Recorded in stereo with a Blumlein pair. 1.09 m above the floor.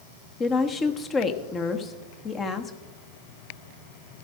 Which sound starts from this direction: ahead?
A woman speaking, at 0.4 s.